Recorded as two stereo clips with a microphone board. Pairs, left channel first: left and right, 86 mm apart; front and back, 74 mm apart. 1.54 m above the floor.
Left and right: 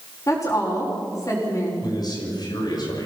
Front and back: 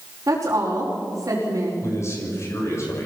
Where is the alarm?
No alarm in this recording.